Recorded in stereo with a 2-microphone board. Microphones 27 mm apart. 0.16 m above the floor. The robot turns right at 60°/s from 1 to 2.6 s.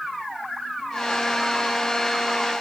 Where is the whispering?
No whispering in this recording.